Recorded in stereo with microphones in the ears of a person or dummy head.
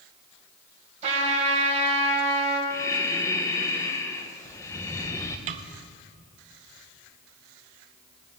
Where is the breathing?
15° left (ahead or behind), 0.8 m.